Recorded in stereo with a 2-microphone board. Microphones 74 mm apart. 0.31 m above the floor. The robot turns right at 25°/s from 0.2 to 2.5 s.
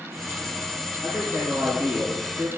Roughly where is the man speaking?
Behind.